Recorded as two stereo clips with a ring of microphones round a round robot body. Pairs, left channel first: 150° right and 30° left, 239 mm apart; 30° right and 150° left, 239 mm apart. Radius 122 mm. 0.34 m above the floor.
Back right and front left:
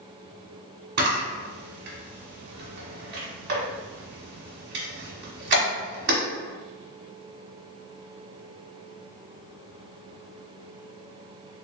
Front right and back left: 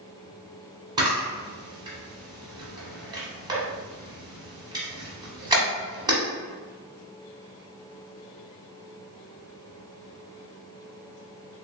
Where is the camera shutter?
75° left, 1.3 m.